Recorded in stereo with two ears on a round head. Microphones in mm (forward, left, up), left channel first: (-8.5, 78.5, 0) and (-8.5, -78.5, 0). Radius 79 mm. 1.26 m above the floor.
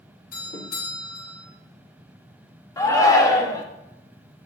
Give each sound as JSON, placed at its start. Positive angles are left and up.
{"t": 0.3, "sound": "a doorbell", "side_deg": 50, "distance_m": 4.0}
{"t": 2.8, "sound": "a shout", "side_deg": 20, "distance_m": 1.6}